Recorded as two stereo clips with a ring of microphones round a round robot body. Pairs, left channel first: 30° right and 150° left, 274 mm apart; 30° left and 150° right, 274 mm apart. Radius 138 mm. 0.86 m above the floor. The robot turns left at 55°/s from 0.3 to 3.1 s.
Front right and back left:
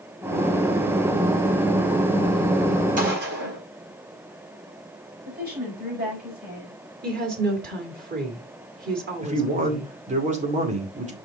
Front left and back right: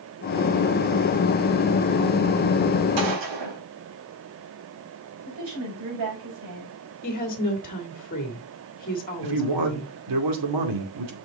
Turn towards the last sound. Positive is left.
turn(degrees=-145)